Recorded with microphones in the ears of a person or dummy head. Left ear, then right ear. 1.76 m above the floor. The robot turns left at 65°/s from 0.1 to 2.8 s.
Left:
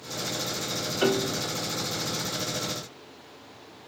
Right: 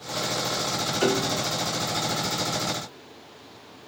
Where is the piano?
10° left (ahead or behind), 0.6 m; by 1.4 s 10° right (ahead or behind), 0.6 m.